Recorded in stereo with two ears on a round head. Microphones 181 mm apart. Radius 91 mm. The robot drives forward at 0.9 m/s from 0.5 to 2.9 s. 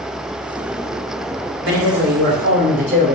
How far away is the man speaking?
About 1.7 m.